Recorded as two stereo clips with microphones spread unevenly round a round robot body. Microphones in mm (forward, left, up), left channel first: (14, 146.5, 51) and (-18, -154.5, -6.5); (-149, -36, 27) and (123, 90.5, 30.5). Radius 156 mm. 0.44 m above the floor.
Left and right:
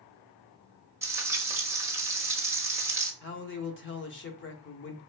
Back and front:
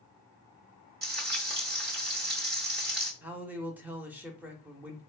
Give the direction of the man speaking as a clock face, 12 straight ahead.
8 o'clock.